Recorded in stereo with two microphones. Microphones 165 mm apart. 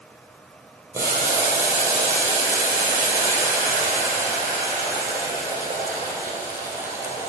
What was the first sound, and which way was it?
Boiling, 20° right (ahead or behind).